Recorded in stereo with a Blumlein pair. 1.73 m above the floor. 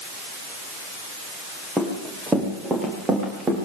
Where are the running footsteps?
5° right, 8 m; by 3.7 s 20° right, 7.5 m.